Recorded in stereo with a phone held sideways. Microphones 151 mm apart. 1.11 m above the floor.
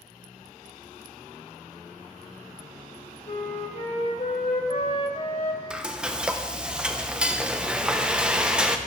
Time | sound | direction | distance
3.3 | a flute | 45° left (ahead or behind) | 1.1 m
5.7 | frying | 5° right (ahead or behind) | 0.6 m